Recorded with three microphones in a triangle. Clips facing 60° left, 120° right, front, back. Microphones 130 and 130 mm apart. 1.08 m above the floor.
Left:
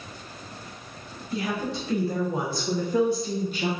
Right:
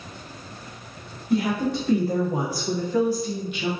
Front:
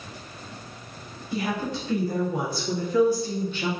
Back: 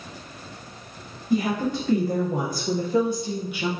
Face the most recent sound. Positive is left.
turn(degrees=100)